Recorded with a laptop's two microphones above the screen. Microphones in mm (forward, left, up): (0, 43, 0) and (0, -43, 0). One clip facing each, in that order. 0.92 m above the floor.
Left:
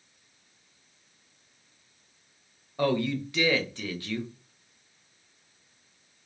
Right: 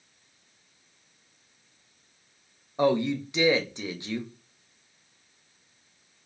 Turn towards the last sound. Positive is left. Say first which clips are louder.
# right 3 dB
turn(degrees=-20)  # may be behind; listen again after turning